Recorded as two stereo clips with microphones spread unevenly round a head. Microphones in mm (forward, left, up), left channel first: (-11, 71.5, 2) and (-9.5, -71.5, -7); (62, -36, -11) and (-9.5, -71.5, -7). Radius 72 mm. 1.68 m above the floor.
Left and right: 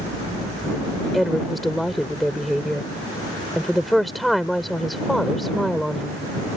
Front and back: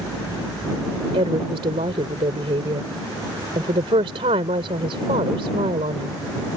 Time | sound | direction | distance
1.1 | a woman speaking | straight behind | ?